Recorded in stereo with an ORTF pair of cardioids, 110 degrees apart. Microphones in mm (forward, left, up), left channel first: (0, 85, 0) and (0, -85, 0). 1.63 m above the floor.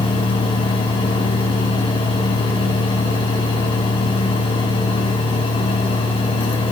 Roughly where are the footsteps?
I don't hear footsteps.